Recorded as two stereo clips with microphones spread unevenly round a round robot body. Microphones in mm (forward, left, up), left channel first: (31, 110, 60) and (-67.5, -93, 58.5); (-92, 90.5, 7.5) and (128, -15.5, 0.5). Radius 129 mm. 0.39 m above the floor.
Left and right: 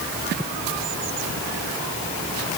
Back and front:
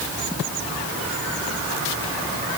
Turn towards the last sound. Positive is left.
No sound to turn to.